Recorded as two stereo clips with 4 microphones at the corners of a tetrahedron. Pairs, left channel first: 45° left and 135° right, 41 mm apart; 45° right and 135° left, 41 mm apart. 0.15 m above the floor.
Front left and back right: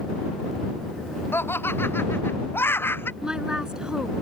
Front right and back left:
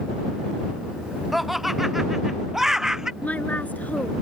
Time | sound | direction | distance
1.3 | laughter | 50° left | ?
3.2 | a woman speaking | 75° right | ?